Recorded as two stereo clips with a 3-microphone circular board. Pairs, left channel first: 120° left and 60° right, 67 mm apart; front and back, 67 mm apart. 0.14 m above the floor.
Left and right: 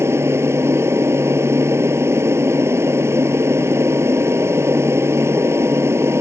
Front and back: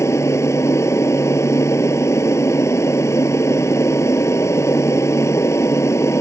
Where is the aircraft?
25° right.